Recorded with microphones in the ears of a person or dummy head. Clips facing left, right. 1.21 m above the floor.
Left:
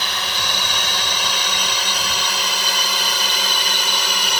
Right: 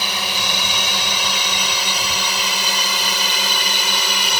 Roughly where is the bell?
I don't hear a bell.